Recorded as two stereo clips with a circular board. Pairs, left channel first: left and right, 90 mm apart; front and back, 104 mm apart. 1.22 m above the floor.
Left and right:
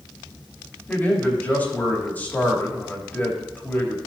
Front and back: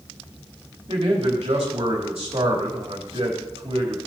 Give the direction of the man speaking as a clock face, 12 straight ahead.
7 o'clock.